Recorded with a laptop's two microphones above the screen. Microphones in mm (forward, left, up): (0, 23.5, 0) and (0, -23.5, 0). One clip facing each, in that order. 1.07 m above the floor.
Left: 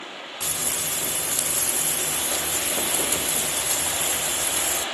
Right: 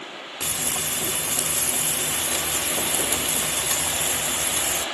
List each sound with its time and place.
0.4 s frying: 55° right (ahead or behind), 1.1 m